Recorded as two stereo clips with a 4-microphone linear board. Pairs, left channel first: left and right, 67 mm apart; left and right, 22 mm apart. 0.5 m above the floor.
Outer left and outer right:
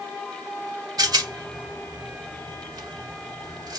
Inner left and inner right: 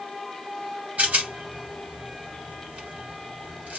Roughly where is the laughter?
No laughter in this recording.